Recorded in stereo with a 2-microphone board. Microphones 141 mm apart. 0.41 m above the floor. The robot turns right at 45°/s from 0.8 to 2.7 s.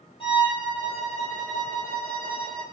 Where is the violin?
40° left, 3.5 m; by 2.6 s 120° left, 3.5 m.